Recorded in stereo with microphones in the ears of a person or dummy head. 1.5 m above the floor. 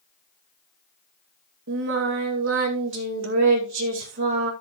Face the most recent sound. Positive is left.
turn(degrees=-70)  # may be behind; listen again after turning